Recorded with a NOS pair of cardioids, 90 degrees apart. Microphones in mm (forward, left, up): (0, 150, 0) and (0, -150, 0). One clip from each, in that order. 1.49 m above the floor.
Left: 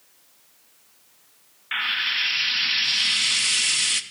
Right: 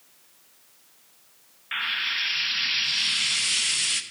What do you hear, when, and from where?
1.7 s frying: 15° left, 0.8 m